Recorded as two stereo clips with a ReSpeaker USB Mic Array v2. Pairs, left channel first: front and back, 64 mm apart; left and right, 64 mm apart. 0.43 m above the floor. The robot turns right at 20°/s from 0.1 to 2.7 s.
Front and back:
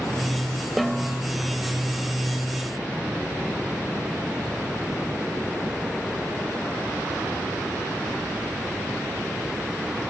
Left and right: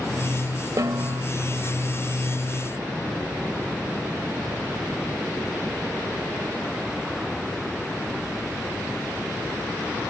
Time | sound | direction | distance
0.8 | a snare drum | 90° right | ?